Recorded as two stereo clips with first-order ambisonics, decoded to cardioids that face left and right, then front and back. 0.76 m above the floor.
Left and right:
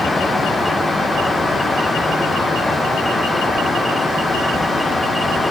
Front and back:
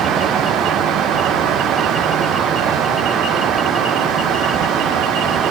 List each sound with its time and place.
Only background noise.